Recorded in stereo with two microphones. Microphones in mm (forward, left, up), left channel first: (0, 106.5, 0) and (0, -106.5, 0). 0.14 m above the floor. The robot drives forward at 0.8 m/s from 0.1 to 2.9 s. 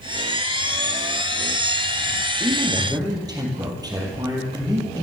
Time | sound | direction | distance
2.4 | a man speaking | 20° right (ahead or behind) | 3 m